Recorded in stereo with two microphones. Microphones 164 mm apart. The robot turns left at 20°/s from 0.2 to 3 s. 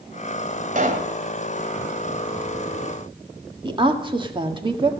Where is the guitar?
No guitar in this recording.